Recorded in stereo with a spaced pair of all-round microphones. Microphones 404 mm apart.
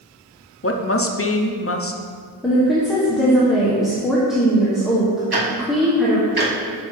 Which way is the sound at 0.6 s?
35° left (ahead or behind).